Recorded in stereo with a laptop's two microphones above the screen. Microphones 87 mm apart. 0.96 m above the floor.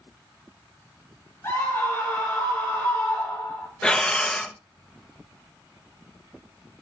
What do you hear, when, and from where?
1.4 s a scream: 30° left (ahead or behind), 2 m
3.8 s breathing: 10° left (ahead or behind), 0.7 m